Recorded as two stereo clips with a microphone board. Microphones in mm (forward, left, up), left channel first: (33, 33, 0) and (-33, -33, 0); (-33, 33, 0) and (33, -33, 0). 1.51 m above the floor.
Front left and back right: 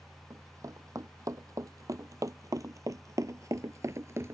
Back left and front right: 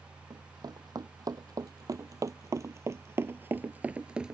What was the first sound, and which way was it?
Running footsteps, 85° right.